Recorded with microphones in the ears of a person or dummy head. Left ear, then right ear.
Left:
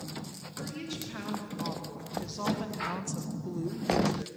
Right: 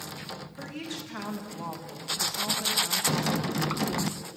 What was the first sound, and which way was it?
A woman speaking, 30° right (ahead or behind).